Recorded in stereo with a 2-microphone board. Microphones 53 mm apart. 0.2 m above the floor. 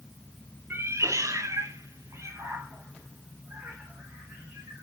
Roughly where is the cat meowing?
Right.